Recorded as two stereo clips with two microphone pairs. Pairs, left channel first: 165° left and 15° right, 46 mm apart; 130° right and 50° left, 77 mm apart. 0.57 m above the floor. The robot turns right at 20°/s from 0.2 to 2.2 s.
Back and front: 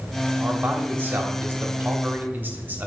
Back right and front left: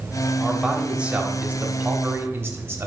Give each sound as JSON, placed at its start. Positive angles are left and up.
{"t": 0.4, "sound": "a man speaking", "azimuth_deg": -30, "distance_m": 1.3}